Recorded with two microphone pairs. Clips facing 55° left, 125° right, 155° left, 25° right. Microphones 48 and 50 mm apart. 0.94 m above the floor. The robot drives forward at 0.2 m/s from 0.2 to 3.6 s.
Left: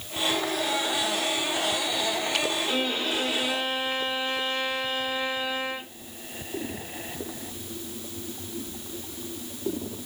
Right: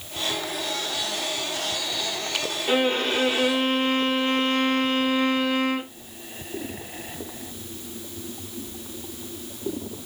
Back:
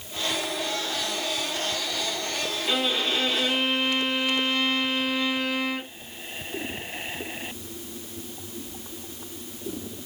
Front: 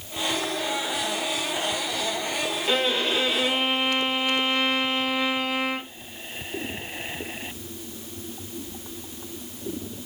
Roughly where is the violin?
Right.